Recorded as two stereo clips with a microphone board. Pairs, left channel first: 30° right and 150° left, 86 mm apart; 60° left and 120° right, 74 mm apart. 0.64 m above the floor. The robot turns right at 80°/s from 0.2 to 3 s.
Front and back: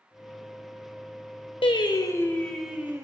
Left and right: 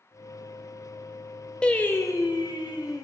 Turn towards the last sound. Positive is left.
turn(degrees=95)